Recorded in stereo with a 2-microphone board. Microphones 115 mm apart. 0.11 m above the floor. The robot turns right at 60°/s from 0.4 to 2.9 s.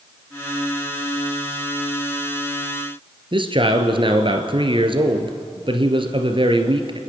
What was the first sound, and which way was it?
A man speaking, 50° right (ahead or behind).